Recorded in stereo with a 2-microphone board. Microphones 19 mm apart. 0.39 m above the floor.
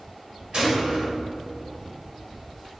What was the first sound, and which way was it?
A gunshot, 50° right (ahead or behind).